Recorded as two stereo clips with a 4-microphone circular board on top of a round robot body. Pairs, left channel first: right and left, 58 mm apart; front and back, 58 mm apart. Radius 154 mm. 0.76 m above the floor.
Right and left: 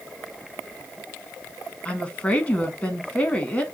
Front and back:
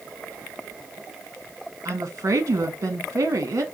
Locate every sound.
1.9 s a woman speaking: 155° right, 1.4 m